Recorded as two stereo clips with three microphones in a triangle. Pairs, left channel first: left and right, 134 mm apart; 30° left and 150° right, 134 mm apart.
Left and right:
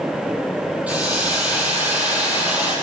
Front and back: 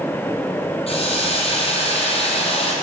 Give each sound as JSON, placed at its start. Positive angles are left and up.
{"t": 0.9, "sound": "a hiss", "azimuth_deg": -10, "distance_m": 1.9}